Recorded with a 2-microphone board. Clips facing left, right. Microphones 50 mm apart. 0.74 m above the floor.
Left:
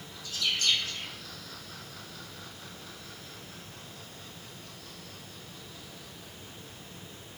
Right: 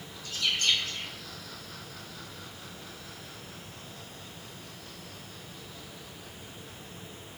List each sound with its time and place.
0.2 s a bird: 40° right (ahead or behind), 1.8 m